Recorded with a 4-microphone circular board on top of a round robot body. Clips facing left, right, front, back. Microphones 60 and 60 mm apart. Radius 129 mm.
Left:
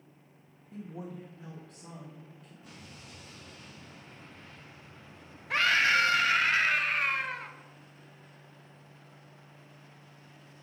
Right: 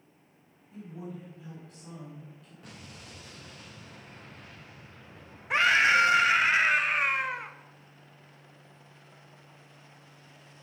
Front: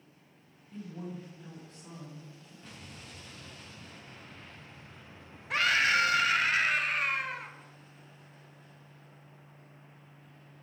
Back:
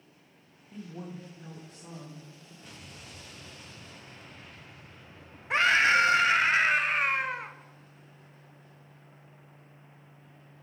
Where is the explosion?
95° right, 2.5 m.